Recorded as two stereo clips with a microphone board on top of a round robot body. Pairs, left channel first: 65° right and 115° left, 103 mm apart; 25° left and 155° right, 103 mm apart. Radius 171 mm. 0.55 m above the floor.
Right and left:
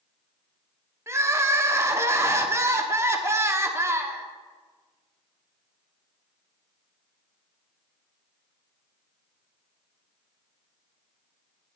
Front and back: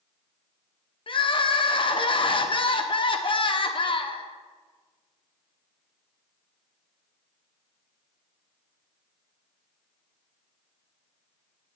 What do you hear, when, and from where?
1.1 s crying: 50° left, 1.3 m